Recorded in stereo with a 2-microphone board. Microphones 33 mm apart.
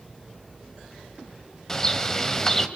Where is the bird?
20° left (ahead or behind), 1.3 m.